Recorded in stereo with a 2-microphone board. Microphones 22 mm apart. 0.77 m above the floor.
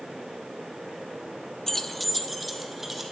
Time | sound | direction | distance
1.7 | keys jangling | 20° left (ahead or behind) | 0.5 m